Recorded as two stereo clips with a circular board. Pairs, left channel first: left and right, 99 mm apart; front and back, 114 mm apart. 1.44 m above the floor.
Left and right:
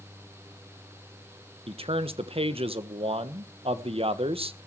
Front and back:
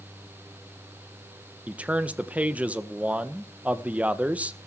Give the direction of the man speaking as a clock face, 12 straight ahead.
3 o'clock.